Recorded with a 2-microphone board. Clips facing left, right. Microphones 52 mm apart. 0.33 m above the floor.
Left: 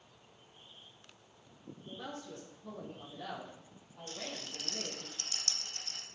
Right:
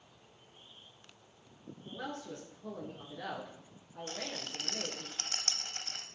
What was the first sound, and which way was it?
A man speaking, 70° right (ahead or behind).